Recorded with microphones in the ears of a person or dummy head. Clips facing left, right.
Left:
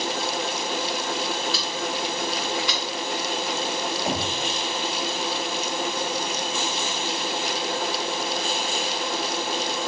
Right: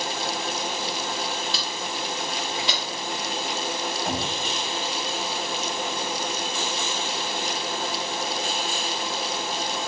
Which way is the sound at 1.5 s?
20° right (ahead or behind).